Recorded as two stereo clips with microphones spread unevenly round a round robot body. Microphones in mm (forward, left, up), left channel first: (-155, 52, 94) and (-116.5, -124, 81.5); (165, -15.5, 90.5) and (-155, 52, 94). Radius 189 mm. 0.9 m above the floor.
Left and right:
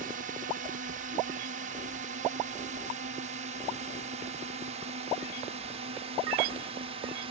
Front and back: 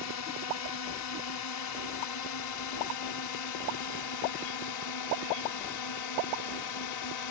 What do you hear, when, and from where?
0.0 s a drone: 40° right; by 7.3 s 20° right